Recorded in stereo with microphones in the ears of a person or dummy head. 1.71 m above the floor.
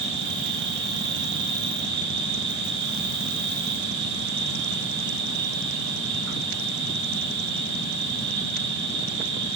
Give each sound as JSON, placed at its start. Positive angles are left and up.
{"t": 0.0, "sound": "an insect", "side_deg": -65, "distance_m": 2.5}